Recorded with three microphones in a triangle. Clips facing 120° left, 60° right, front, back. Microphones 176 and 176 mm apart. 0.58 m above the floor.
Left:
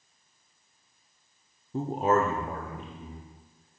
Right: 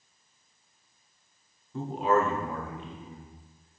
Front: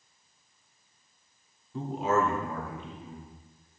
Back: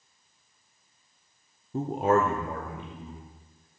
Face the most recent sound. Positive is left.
turn(degrees=160)